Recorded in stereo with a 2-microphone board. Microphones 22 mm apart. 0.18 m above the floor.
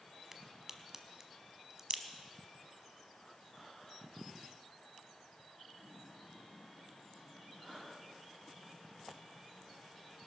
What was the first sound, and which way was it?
A crack, 20° right (ahead or behind).